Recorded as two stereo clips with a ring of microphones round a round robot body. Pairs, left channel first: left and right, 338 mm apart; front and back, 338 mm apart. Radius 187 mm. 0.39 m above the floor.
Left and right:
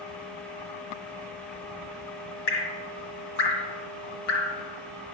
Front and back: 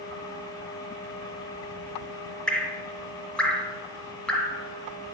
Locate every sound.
2.5 s dripping: 90° left, 1.5 m